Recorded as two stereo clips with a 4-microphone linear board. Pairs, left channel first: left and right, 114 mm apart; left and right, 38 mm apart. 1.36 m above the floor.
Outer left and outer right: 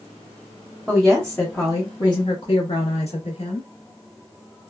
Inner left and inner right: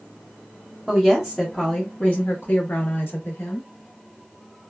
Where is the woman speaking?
Centre (ahead or behind), 0.9 m; by 3.7 s 75° left (ahead or behind), 1.3 m.